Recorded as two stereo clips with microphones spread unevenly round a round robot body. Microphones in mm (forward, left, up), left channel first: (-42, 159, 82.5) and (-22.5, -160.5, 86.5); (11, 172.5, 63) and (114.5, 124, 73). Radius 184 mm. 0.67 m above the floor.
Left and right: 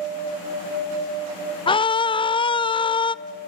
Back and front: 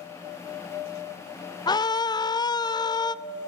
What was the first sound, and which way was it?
A scream, 160° left.